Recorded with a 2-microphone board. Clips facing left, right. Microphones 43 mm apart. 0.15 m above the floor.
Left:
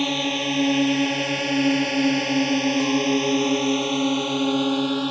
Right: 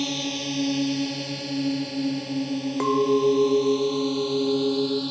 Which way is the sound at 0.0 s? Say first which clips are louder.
Left 5 dB; 35° left (ahead or behind).